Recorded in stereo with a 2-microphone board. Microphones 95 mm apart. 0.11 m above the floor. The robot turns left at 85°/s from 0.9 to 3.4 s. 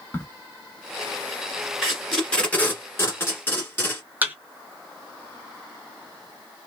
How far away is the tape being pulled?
About 1.6 m.